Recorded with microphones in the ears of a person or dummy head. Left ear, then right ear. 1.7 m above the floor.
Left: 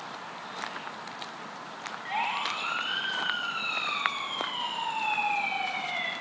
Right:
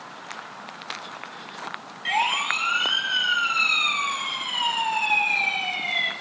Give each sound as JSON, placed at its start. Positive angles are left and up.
{"t": 2.0, "sound": "a siren", "side_deg": -75, "distance_m": 8.5}